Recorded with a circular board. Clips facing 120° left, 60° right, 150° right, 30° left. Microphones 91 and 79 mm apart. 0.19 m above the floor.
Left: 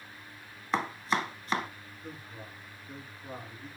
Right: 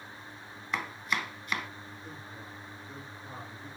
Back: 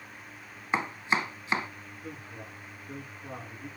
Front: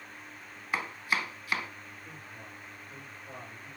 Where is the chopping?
160° left, 0.8 m.